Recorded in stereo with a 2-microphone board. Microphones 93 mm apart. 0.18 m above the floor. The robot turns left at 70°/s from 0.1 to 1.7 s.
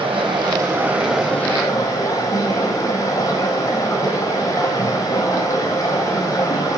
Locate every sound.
0.0 s running water: 105° right, 1.0 m; by 6.8 s 145° left, 1.0 m